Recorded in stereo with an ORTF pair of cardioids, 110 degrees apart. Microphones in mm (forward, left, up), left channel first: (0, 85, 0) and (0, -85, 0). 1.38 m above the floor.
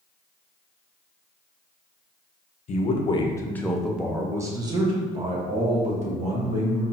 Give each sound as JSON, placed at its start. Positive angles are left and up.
{"t": 2.7, "sound": "a man speaking", "azimuth_deg": 50, "distance_m": 0.9}